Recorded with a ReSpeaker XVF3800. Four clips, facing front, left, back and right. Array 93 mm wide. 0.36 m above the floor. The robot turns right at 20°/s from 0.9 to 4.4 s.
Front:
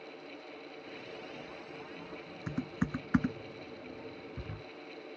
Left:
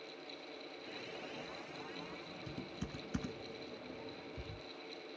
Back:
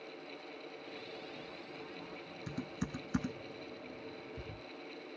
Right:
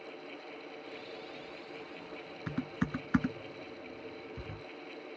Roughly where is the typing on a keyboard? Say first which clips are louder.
Right 13 dB, front 6 dB; ahead right.